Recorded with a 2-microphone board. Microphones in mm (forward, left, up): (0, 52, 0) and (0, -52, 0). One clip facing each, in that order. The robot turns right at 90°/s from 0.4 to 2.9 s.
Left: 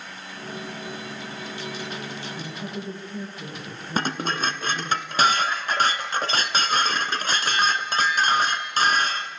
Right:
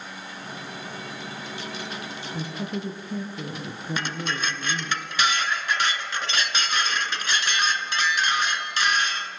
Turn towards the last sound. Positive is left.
turn(degrees=40)  # may be behind; listen again after turning